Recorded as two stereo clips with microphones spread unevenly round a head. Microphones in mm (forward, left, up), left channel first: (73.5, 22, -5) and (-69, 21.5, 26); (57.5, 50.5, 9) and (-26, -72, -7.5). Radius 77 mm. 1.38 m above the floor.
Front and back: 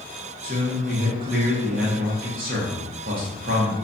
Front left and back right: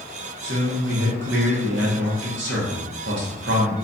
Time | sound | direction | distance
0.4 | a man speaking | 150° right | 0.8 m